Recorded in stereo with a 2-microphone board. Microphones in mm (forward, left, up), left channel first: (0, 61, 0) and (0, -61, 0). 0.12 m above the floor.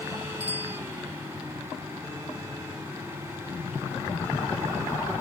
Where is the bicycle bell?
60° right (ahead or behind).